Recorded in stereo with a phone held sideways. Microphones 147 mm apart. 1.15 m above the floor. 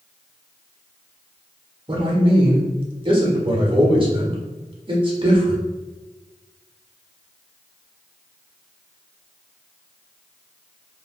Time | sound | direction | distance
1.9 | a man speaking | 35° right (ahead or behind) | 0.9 m